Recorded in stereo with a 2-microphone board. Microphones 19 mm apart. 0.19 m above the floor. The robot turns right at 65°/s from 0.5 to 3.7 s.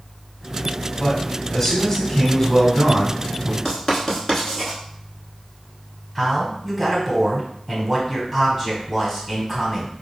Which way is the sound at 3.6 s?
5° left (ahead or behind).